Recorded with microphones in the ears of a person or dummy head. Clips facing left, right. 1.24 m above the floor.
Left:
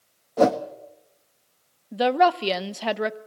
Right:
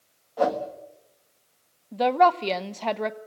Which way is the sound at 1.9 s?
15° left (ahead or behind).